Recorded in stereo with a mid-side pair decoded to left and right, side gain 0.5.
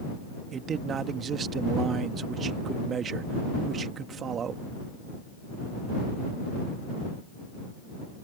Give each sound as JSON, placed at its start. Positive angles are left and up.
{"t": 0.5, "sound": "a man speaking", "azimuth_deg": -50}